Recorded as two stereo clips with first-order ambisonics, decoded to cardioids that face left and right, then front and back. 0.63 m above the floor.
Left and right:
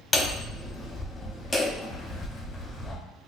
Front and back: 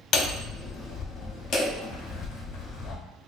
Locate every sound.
0.1 s hammering: 25° left, 0.7 m